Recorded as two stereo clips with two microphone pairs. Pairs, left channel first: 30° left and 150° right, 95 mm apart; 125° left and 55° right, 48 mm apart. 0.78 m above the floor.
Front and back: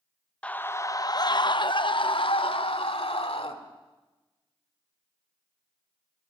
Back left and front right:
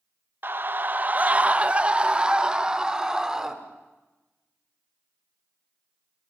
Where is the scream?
50° right, 0.6 m; by 3.5 s 20° left, 1.9 m.